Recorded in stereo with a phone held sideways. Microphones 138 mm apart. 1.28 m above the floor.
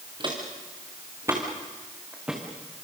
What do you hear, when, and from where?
0.2 s footsteps: 35° right (ahead or behind), 5.5 m; by 2.9 s centre (ahead or behind), 5 m